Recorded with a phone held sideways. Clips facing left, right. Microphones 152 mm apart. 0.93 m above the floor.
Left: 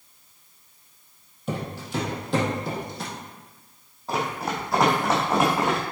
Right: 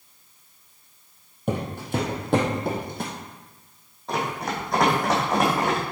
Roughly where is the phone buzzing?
No phone buzzing in this recording.